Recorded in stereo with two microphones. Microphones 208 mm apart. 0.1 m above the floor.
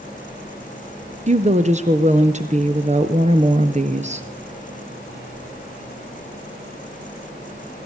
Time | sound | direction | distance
1.3 | a woman speaking | 35° right (ahead or behind) | 1.6 m